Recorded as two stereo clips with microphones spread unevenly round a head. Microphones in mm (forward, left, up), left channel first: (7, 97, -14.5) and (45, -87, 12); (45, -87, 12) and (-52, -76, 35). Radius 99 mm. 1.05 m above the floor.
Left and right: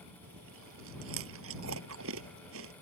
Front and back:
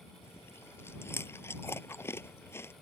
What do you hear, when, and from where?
0.2 s chewing: 70° right